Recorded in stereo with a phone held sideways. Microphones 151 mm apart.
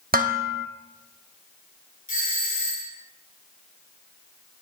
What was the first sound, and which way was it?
Dishes clattering, 75° right (ahead or behind).